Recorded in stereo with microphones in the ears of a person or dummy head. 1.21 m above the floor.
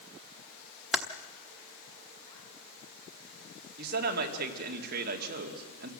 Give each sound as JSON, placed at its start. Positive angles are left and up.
{"t": 0.9, "sound": "typing on a keyboard", "side_deg": 0, "distance_m": 1.0}
{"t": 3.8, "sound": "a man speaking", "side_deg": -55, "distance_m": 2.5}